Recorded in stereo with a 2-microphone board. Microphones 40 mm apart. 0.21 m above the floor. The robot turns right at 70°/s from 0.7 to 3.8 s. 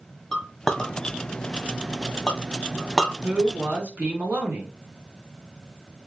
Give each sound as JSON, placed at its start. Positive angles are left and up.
{"t": 0.3, "sound": "a clink", "side_deg": 10, "distance_m": 1.0}
{"t": 3.2, "sound": "a man speaking", "azimuth_deg": -115, "distance_m": 2.0}